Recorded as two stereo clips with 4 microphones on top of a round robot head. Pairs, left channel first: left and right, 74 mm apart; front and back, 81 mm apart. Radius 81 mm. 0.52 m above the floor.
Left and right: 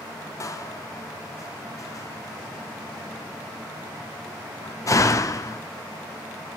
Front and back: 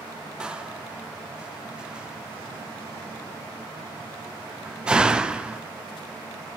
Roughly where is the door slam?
Left.